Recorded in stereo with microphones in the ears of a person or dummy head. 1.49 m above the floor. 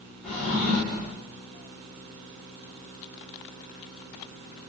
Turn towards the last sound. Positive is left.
turn(degrees=0)  # may be behind; listen again after turning